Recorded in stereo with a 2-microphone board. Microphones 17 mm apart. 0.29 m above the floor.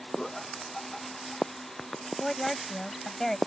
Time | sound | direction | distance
0.2 | laughter | 10° left (ahead or behind) | ?
2.2 | a woman speaking | 20° left (ahead or behind) | ?